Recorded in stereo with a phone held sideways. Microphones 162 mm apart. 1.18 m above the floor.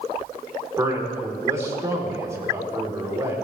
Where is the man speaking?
15° right (ahead or behind), 3.5 m.